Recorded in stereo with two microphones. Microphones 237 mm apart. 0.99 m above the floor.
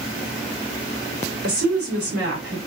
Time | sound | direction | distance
1.4 | a woman speaking | 70° right (ahead or behind) | 2 m